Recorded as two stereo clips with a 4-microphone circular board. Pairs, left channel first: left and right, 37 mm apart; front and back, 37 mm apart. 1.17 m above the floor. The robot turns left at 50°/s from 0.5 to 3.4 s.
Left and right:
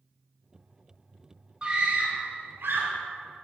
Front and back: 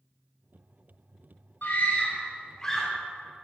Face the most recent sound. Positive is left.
turn(degrees=-110)